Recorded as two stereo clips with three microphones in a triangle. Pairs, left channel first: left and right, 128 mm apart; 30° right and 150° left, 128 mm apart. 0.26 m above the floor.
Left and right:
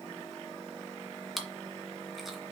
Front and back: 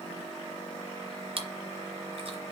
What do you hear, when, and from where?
1.4 s chewing: straight behind, 1.5 m